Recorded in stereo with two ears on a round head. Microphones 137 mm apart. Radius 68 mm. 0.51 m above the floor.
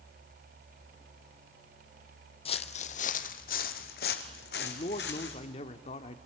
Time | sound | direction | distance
2.5 | footsteps | 35° left (ahead or behind) | 1.1 m
4.6 | a man speaking | 40° left (ahead or behind) | 1.2 m